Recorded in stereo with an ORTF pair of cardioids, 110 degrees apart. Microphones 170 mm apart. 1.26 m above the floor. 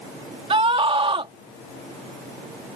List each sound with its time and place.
0.5 s a scream: 30° right